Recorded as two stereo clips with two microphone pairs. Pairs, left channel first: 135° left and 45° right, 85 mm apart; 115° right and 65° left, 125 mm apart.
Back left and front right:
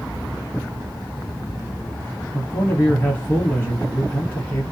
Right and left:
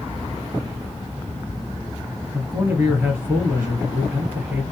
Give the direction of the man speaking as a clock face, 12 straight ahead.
8 o'clock.